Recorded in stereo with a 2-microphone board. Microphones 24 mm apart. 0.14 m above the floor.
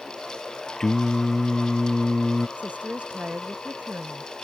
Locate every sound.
0.8 s singing: 15° left (ahead or behind)
2.6 s a woman speaking: 65° right (ahead or behind)